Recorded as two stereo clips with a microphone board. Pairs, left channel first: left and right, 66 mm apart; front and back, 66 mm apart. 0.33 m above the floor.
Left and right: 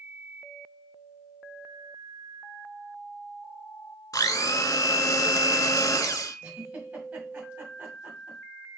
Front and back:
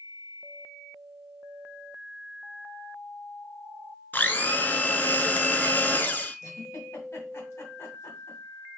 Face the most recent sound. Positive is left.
turn(degrees=-25)